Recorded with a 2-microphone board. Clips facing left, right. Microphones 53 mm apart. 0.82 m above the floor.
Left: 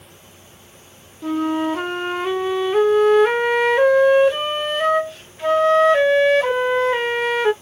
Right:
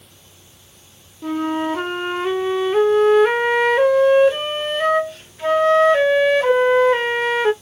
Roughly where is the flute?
Centre.